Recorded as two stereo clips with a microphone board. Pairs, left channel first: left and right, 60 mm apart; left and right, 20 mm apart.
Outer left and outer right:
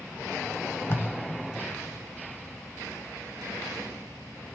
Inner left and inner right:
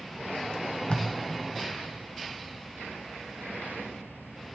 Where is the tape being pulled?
45° left (ahead or behind), 1.0 m.